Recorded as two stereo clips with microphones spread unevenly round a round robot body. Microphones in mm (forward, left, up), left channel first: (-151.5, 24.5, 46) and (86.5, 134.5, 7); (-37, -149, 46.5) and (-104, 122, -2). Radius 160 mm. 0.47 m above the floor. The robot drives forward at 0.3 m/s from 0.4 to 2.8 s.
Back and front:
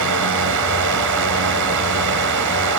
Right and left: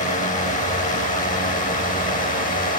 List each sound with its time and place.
0.0 s a drone: 5° right; by 2.8 s 10° right